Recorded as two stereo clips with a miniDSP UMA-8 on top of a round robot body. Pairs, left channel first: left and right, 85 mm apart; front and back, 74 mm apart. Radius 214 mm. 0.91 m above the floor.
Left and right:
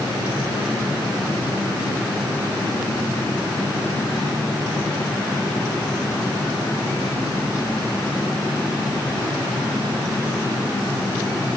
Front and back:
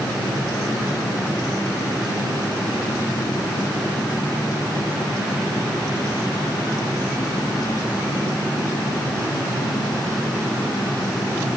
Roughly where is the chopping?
I don't hear chopping.